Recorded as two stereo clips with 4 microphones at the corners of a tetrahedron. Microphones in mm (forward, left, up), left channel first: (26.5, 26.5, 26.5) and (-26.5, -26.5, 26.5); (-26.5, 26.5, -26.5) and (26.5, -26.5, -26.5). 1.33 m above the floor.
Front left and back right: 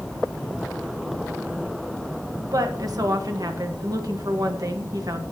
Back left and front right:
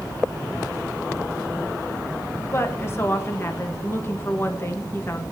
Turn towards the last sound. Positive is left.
turn(degrees=-170)